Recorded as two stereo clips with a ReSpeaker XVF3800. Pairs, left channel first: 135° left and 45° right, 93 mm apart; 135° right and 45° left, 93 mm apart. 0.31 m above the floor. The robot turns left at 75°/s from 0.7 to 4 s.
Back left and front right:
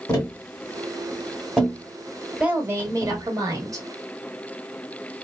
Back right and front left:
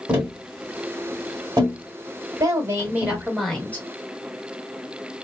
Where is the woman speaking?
25° left, 1.2 m; by 3.9 s 85° right, 1.2 m.